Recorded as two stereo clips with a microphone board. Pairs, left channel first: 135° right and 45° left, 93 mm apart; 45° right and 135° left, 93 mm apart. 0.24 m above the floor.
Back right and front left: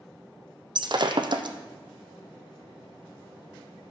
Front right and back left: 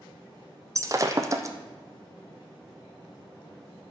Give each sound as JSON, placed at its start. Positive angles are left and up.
{"t": 0.8, "sound": "breaking glass", "azimuth_deg": 80, "distance_m": 0.7}